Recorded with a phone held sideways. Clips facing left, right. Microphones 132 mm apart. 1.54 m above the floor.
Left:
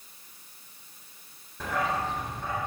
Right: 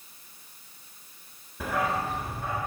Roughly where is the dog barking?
Centre.